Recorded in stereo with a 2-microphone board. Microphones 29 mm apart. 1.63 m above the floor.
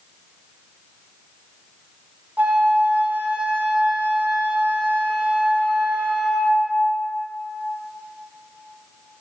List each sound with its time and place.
2.4 s a flute: 60° right (ahead or behind), 1.3 m